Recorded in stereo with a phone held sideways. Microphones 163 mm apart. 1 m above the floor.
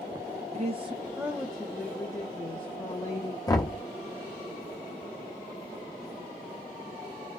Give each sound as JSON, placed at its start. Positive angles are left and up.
{"t": 0.5, "sound": "a woman speaking", "side_deg": -45, "distance_m": 0.5}
{"t": 3.5, "sound": "knocking", "side_deg": 25, "distance_m": 0.8}